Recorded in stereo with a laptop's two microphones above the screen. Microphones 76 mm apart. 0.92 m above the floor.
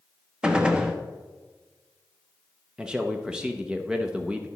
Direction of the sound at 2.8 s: 10° right (ahead or behind).